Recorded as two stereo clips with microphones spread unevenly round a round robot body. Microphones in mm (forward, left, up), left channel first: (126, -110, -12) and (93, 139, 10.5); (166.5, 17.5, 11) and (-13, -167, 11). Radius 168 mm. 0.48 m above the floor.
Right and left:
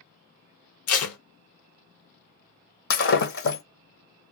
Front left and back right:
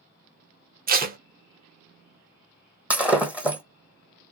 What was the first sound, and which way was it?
Tape being pulled, 80° right.